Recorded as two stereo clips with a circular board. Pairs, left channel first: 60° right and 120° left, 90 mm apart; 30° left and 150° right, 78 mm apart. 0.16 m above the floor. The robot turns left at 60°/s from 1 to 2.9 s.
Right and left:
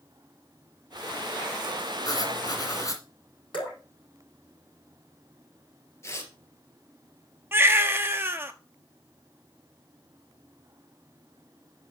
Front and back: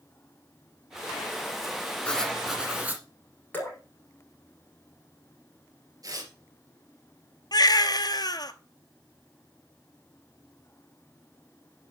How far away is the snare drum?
I don't hear a snare drum.